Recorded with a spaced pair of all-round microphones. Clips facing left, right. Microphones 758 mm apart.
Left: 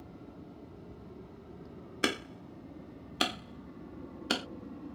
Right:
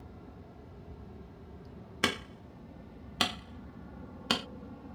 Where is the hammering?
35° right (ahead or behind).